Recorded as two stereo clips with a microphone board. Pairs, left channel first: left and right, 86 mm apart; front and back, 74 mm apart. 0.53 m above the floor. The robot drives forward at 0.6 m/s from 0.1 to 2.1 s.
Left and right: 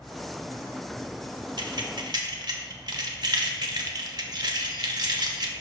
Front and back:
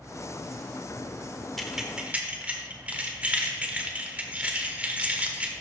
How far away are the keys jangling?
About 0.8 m.